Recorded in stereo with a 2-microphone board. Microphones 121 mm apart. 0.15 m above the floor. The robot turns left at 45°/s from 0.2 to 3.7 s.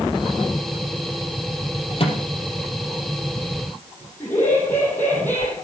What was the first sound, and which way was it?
A microwave, 50° left (ahead or behind).